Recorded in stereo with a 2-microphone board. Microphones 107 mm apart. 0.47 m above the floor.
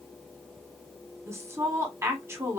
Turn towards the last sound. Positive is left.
turn(degrees=-25)  # may be behind; listen again after turning